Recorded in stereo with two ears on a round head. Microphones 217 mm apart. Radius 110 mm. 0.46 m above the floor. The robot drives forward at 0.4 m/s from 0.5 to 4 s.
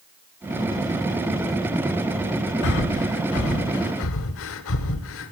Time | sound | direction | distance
2.6 | breathing | 50° left (ahead or behind) | 1.0 m